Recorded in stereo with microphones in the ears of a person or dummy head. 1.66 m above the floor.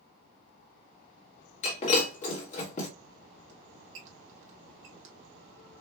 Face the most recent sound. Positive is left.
turn(degrees=-50)  # may be behind; listen again after turning